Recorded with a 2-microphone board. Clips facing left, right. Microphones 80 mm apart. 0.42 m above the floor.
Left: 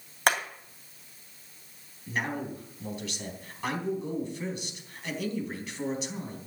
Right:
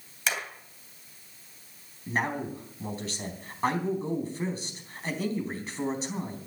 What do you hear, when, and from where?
0.3 s hammering: 55° left (ahead or behind), 2.5 m
2.1 s a man speaking: 35° right (ahead or behind), 4 m